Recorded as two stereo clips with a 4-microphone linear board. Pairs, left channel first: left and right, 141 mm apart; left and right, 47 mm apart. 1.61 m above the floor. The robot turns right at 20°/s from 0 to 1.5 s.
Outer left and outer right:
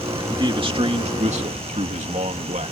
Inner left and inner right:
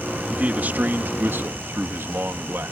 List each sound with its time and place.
0.3 s a man speaking: 30° right (ahead or behind); by 2.7 s 55° right (ahead or behind)